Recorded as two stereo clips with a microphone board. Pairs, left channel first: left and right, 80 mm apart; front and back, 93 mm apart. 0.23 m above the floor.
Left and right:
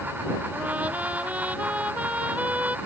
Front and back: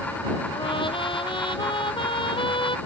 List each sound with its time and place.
0.5 s a trumpet: 20° right